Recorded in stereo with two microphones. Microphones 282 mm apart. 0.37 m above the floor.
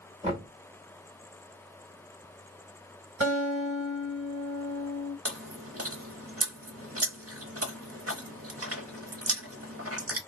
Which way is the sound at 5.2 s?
55° right (ahead or behind).